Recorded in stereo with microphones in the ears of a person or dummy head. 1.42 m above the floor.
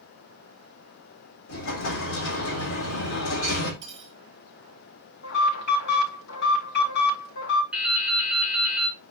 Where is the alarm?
60° left (ahead or behind), 4.5 m.